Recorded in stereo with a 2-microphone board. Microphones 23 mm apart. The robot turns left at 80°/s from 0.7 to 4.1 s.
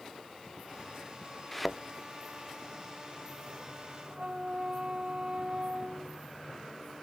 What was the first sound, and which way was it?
A thud, 10° left (ahead or behind).